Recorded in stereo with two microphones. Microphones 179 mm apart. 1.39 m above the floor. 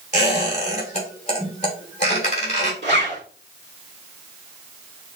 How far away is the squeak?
About 3 m.